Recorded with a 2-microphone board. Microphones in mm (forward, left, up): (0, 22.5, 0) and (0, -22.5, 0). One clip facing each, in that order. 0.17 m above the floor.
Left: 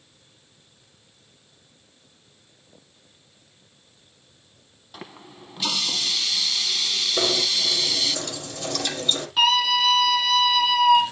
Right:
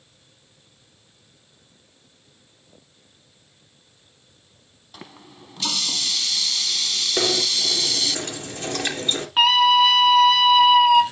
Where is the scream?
35° right (ahead or behind), 1.9 m.